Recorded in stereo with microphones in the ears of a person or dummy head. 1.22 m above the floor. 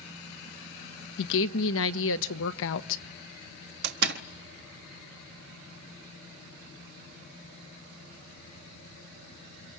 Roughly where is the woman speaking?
Left.